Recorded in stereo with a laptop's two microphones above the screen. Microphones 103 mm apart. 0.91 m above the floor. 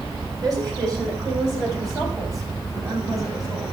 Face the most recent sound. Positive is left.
turn(degrees=-35)  # may be behind; listen again after turning